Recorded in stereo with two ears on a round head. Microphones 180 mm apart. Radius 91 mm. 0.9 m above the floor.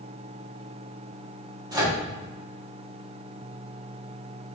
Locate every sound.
1.7 s a microwave: 20° right (ahead or behind), 1.8 m